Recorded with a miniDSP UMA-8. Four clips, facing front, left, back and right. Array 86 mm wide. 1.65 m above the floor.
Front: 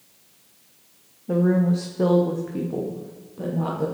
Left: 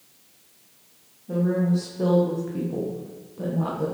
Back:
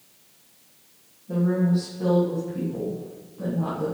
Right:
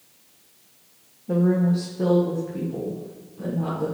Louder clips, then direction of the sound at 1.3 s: Right 2 dB, front 3 dB; 25° right.